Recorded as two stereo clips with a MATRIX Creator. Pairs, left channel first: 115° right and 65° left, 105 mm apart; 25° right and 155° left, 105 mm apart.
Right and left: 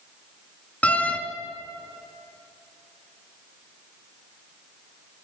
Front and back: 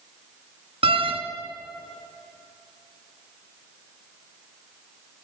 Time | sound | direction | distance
0.8 | a door slam | 170° left | 2.5 m